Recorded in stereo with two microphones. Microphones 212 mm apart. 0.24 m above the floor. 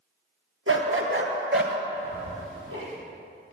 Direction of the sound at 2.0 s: 70° right (ahead or behind).